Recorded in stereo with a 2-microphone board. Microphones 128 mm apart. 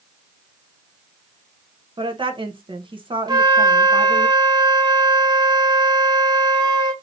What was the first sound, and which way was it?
A woman speaking, 40° right (ahead or behind).